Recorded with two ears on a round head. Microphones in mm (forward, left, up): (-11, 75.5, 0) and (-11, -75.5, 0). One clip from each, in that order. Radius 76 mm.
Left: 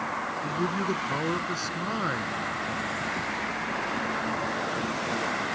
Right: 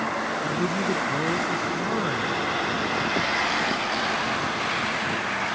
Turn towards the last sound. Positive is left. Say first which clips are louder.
# right 3 dB
turn(degrees=75)  # may be behind; listen again after turning